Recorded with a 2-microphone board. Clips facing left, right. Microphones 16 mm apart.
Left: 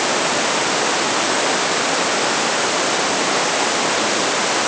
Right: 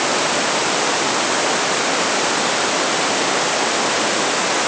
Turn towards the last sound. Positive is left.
No sound to turn to.